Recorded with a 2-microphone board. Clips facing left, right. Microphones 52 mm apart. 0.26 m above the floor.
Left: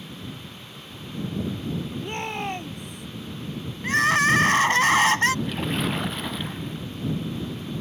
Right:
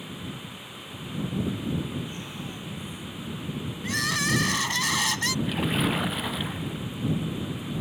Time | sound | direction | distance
2.0 | a shout | 65° left (ahead or behind) | ?
3.8 | crying | 45° left (ahead or behind) | ?
5.5 | a splash | 5° right (ahead or behind) | ?